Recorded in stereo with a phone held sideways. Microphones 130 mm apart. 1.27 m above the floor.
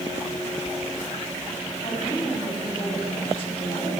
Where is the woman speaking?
45° left (ahead or behind), 8.5 m.